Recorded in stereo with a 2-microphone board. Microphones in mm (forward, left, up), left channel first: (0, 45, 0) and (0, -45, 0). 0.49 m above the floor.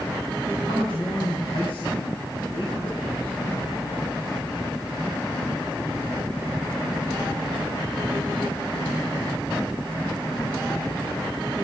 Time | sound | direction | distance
0.6 | a man speaking | 70° left (ahead or behind) | 4.5 m